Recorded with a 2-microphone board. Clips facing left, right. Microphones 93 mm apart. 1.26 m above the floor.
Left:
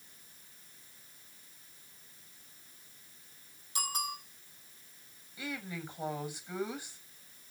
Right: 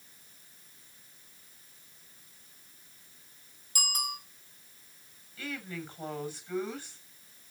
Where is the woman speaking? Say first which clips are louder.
Right 1 dB; 15° left (ahead or behind), 7.5 m.